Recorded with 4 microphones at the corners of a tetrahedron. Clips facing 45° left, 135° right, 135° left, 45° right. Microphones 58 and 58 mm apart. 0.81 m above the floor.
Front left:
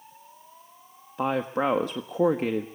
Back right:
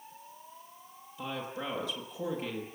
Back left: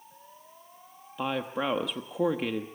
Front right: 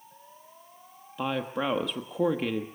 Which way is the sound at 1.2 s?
50° left.